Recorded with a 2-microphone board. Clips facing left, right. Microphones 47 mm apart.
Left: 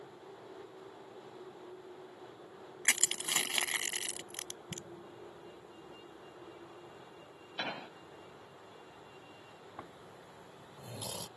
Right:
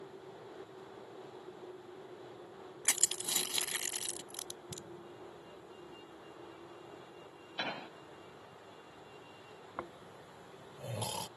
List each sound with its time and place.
2.9 s crushing: 55° left (ahead or behind)
4.7 s an explosion: 45° left (ahead or behind)
7.6 s an explosion: 5° left (ahead or behind)
9.8 s snoring: 50° right (ahead or behind)